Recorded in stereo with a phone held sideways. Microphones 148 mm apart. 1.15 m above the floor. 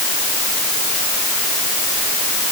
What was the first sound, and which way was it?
Only background noise.